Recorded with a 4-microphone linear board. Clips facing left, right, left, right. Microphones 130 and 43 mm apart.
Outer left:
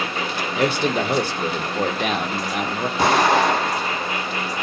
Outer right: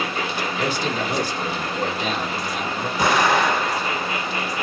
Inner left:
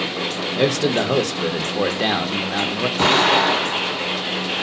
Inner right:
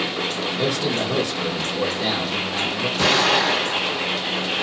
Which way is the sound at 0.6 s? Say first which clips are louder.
Outer left 6 dB, inner left 6 dB; 65° left (ahead or behind).